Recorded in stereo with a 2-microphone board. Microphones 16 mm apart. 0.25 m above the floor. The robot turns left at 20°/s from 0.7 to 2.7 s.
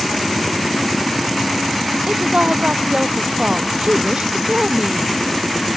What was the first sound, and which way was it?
A woman speaking, 85° right.